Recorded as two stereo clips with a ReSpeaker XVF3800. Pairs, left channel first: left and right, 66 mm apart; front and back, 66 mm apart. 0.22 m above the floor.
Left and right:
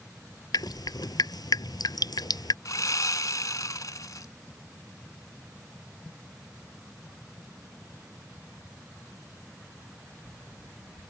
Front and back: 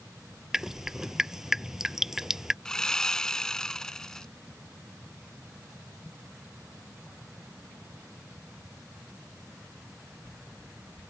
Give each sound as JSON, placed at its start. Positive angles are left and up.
{"t": 0.5, "sound": "dripping", "azimuth_deg": 95}
{"t": 2.6, "sound": "sawing", "azimuth_deg": 80}